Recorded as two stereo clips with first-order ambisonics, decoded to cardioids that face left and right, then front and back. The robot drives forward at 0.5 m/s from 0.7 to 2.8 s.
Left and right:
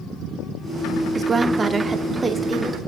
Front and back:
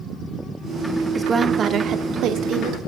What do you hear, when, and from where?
1.1 s a woman speaking: 115° right, 0.7 m; by 2.8 s 165° right, 1.2 m